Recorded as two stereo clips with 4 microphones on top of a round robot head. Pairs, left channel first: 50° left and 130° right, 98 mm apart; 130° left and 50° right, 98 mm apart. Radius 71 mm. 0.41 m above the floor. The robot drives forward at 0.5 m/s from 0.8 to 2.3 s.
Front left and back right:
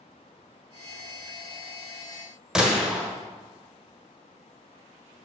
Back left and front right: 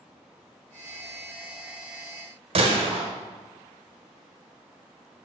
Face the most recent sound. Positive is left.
turn(degrees=-45)